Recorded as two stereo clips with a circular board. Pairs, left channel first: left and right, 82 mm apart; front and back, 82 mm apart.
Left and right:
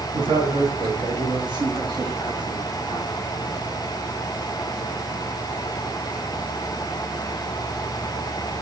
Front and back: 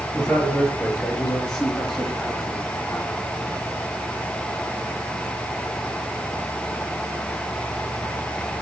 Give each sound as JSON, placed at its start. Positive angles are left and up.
{"t": 0.1, "sound": "a man speaking", "azimuth_deg": -85, "distance_m": 5.5}